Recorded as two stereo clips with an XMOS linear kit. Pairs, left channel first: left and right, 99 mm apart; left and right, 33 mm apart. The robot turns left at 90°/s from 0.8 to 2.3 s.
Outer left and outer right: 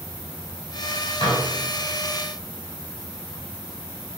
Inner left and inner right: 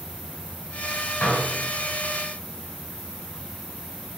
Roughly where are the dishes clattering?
Left.